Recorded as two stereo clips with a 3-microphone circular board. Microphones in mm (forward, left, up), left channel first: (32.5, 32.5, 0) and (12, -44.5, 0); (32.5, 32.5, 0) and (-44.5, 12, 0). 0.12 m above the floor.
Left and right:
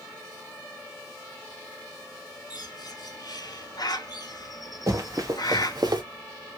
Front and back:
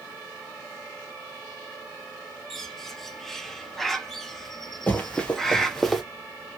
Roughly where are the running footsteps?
Ahead right.